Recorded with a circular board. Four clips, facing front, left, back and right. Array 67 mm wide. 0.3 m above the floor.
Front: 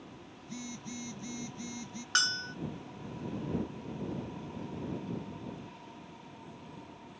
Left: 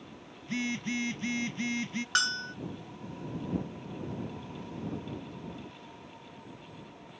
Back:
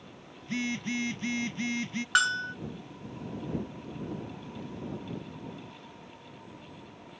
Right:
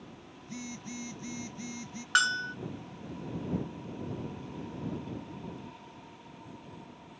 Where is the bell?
150° right.